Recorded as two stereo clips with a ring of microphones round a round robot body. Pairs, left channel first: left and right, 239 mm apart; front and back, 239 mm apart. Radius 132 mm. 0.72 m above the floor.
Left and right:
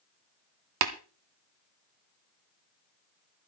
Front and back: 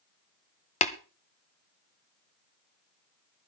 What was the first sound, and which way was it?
Tapping, 60° right.